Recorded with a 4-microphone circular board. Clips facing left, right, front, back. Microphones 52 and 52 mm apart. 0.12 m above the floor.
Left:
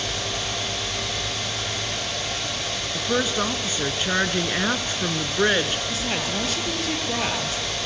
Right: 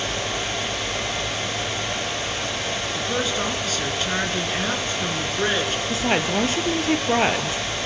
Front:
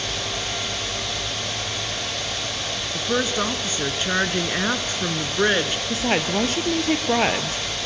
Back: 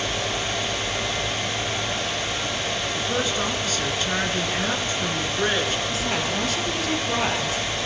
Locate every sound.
2.9 s a woman speaking: 35° left, 1.5 m
5.9 s a woman speaking: 40° right, 2 m